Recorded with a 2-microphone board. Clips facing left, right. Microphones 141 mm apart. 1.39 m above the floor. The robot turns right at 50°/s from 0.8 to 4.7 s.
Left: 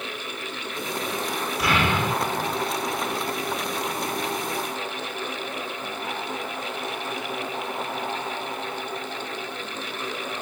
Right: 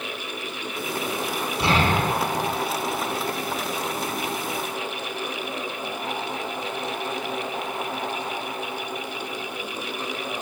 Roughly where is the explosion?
Behind right.